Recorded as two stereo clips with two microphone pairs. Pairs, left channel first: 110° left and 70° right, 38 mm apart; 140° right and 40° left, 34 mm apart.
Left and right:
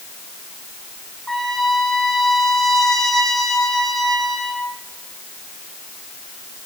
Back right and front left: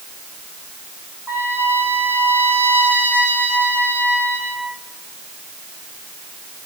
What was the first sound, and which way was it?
A trumpet, 30° left.